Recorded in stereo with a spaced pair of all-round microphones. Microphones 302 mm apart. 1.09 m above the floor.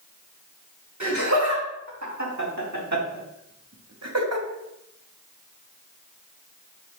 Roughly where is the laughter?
Right.